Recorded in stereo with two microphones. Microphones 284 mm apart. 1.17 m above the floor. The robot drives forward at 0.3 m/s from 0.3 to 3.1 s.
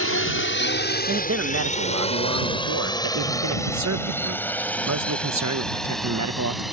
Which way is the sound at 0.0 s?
50° left (ahead or behind).